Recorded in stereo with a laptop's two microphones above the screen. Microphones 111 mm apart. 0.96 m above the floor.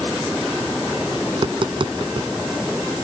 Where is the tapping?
45° right (ahead or behind).